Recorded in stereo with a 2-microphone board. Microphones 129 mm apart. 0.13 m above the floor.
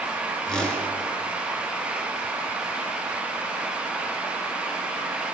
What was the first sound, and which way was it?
A whoosh, 5° left (ahead or behind).